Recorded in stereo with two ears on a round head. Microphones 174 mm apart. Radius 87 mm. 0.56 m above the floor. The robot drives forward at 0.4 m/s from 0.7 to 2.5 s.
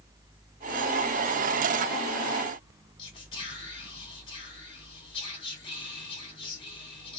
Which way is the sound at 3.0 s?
30° left (ahead or behind).